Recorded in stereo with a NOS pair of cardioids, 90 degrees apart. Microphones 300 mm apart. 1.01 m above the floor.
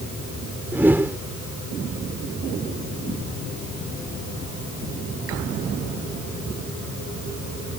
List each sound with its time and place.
0.7 s a whoosh: 5° right